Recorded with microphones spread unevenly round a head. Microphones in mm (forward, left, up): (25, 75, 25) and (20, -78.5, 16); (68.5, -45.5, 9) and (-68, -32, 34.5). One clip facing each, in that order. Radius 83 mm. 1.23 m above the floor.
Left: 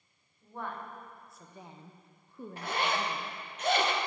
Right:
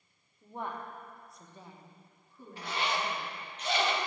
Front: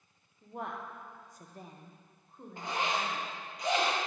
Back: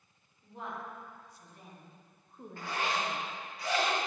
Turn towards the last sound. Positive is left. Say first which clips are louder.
# left 2 dB, front 1 dB
turn(degrees=55)